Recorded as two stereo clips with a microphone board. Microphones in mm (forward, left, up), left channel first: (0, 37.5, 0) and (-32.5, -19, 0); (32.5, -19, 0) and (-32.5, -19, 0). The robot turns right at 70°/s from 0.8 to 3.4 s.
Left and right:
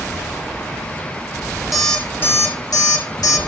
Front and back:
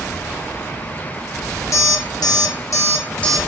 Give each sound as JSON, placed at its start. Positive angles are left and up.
{"t": 1.7, "sound": "an alarm clock", "azimuth_deg": -30, "distance_m": 0.9}